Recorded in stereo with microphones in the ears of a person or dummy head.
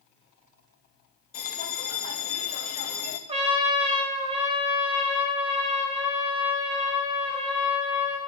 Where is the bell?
40° left (ahead or behind), 1.1 m.